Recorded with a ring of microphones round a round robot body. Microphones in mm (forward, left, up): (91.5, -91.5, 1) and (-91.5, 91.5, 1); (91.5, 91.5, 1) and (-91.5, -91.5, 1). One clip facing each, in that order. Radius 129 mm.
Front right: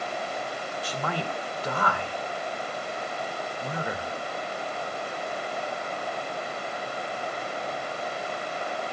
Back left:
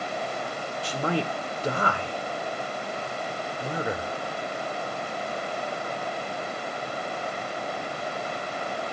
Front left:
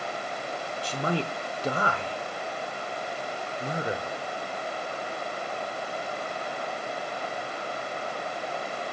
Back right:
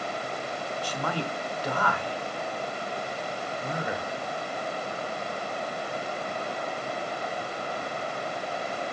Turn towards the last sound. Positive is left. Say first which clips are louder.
# back left 6 dB, front left 4 dB
turn(degrees=95)